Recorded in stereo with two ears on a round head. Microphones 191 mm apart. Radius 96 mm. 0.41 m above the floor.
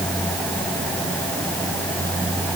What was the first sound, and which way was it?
Only background noise.